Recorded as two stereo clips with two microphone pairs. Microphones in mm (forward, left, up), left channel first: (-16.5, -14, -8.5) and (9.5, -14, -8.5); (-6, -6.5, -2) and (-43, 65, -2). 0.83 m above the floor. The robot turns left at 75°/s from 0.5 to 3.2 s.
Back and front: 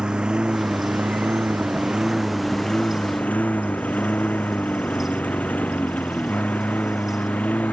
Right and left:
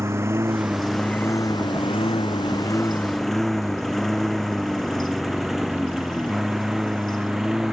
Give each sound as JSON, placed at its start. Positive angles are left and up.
{"t": 0.0, "sound": "a lawn mower", "azimuth_deg": 60}